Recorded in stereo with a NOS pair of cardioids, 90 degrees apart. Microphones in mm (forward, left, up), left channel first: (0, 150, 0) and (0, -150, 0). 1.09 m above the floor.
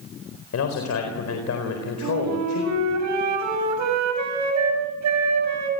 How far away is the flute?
About 7 m.